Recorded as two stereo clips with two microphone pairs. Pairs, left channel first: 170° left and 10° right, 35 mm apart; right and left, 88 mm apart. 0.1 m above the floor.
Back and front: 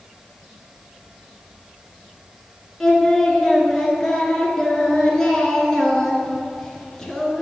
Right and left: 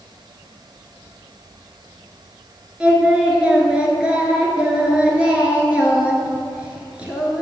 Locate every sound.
2.8 s singing: 140° left, 1.6 m